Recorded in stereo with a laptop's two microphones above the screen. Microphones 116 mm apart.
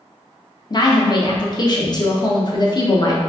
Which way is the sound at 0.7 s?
35° left (ahead or behind).